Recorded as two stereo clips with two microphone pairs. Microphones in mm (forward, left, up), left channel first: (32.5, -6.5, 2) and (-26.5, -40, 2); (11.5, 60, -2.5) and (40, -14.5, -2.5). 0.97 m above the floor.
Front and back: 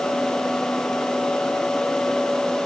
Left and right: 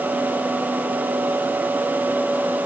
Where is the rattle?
I don't hear a rattle.